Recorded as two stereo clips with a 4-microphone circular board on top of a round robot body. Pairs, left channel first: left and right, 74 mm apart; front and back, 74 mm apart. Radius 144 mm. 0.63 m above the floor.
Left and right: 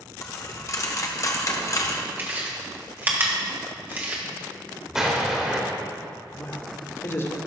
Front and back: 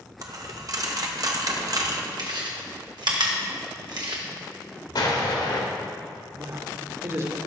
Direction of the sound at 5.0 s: 10° right.